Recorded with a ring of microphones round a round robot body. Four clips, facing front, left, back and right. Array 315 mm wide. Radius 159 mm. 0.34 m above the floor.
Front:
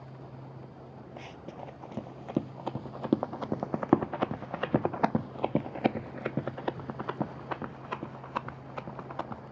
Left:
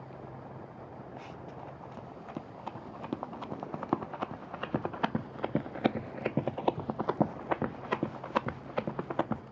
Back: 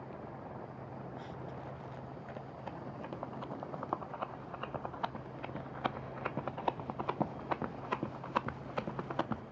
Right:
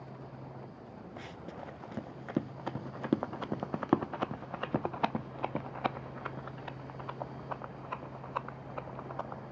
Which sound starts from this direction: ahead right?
Running footsteps, at 1.2 s.